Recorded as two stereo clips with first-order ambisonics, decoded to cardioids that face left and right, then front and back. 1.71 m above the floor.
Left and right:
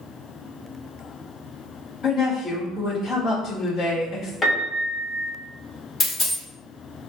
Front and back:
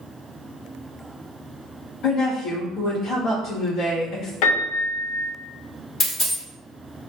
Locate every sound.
2.0 s a woman speaking: 15° left, 1.4 m
4.4 s a piano: 10° left, 0.6 m
6.0 s a dropped coin: 25° left, 1.4 m